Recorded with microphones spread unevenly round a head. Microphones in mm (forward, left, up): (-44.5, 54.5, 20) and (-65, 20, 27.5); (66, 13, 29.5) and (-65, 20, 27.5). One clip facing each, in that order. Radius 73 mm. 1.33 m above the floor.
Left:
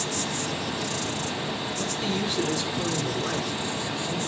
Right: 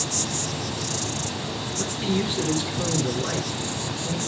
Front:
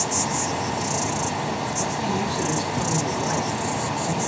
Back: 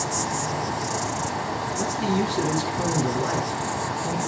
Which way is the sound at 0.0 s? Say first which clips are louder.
Even, front 1 dB; 40° left.